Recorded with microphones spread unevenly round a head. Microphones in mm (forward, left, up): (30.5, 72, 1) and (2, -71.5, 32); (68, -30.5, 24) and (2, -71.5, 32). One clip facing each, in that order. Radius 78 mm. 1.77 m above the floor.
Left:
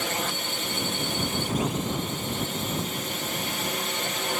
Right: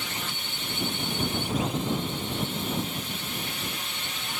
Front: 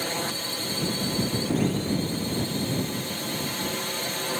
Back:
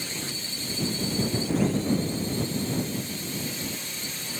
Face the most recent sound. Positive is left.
turn(degrees=55)